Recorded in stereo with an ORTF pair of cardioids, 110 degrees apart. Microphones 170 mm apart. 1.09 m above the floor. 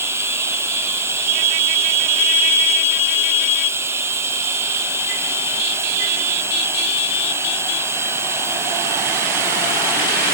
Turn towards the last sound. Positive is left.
turn(degrees=-15)